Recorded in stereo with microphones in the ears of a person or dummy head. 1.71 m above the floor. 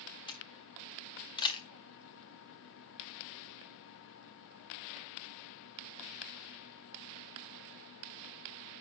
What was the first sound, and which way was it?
A camera shutter, 25° left (ahead or behind).